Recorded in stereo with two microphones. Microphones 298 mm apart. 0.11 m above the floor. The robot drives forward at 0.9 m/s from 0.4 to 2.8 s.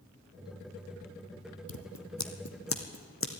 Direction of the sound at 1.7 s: 75° left (ahead or behind).